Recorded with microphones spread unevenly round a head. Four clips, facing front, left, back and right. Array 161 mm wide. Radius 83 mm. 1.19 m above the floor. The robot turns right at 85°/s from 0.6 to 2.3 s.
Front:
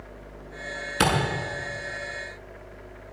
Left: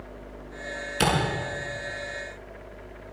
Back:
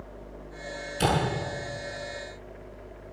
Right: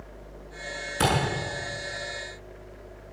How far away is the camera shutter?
About 7.5 m.